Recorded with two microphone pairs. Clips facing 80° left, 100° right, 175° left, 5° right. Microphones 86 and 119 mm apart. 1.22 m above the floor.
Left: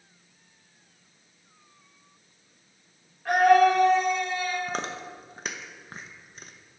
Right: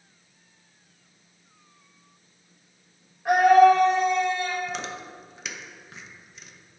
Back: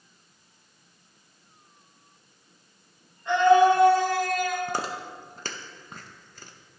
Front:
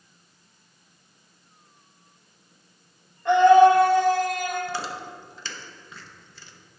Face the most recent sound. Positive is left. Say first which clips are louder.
# left 1 dB, back 1 dB
turn(degrees=130)